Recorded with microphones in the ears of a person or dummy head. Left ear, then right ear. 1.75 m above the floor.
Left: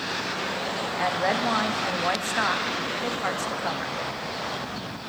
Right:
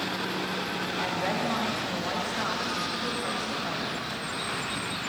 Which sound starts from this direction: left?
A woman speaking, at 1.0 s.